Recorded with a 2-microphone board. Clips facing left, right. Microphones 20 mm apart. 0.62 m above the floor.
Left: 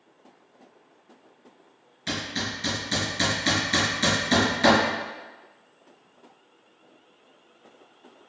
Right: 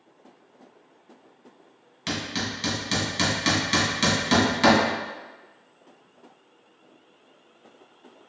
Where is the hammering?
45° right (ahead or behind), 2.0 m.